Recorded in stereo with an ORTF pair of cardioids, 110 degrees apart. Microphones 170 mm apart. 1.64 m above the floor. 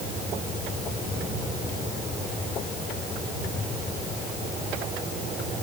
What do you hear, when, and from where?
Only background noise.